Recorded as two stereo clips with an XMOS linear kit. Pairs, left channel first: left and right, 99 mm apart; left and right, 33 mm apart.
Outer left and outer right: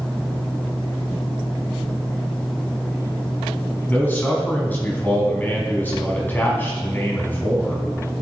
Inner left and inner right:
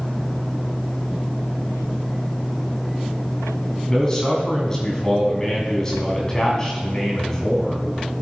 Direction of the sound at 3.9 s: 20° left (ahead or behind).